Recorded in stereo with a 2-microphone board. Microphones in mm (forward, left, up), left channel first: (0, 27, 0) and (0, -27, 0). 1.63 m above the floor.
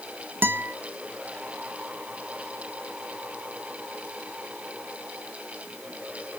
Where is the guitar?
40° right (ahead or behind), 1.0 m.